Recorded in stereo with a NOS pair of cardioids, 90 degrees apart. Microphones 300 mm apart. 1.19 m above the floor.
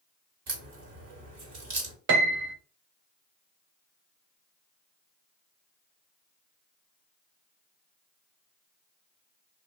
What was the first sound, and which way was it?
A crack, 55° right.